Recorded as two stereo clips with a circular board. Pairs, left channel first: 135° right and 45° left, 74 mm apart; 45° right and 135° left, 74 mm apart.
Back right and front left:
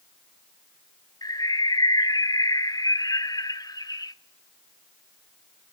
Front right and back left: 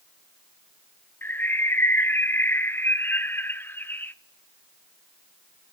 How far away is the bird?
About 0.6 m.